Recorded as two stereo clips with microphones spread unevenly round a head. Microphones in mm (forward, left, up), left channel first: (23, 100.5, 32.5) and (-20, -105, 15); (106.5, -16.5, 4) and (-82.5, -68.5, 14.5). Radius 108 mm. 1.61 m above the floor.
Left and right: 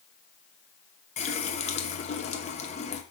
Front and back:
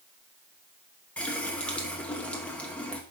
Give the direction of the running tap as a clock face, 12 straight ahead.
9 o'clock.